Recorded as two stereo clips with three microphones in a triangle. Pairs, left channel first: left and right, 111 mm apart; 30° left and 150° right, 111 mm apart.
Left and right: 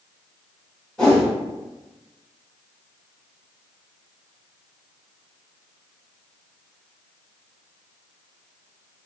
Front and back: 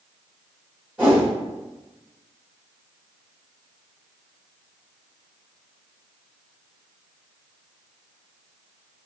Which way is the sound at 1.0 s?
160° left.